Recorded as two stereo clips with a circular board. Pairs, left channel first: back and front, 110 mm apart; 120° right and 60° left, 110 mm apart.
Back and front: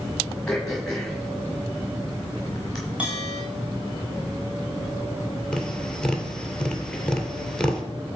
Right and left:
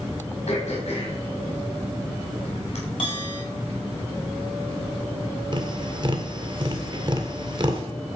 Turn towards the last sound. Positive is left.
turn(degrees=100)